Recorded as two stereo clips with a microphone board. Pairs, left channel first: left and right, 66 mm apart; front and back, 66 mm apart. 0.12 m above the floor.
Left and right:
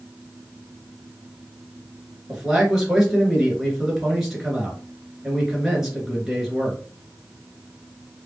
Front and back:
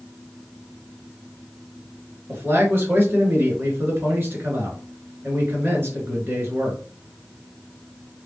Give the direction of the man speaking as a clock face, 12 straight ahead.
6 o'clock.